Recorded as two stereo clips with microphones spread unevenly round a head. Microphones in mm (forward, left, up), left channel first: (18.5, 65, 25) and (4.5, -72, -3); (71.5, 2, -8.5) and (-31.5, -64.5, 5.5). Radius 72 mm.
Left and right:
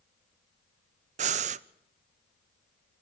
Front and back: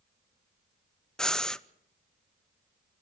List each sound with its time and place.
1.2 s breathing: 55° right, 0.6 m